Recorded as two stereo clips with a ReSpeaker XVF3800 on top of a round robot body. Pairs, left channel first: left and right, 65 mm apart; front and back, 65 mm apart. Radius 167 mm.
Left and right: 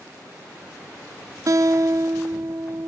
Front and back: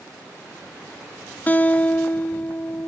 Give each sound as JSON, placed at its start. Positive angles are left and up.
{"t": 1.5, "sound": "a guitar", "azimuth_deg": -65, "distance_m": 0.8}